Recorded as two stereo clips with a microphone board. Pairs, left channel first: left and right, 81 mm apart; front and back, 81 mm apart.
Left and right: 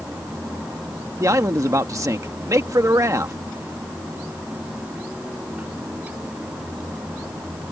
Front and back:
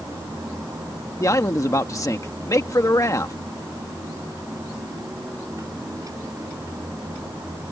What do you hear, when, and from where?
1.2 s a man speaking: 45° right